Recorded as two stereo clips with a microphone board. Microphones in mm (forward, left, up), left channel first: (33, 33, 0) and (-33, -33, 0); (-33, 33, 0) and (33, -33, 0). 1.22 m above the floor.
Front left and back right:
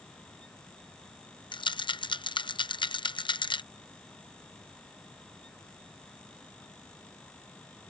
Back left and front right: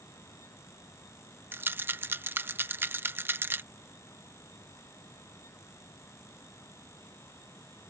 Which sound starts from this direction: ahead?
A rattle, at 1.5 s.